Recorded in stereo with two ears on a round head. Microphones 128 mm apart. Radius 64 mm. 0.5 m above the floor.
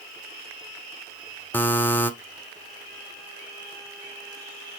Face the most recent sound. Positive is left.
turn(degrees=15)  # may be behind; listen again after turning